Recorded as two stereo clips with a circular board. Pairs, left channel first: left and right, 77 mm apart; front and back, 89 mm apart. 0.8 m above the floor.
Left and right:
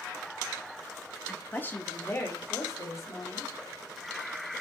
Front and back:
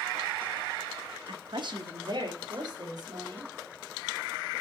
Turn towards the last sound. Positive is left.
turn(degrees=140)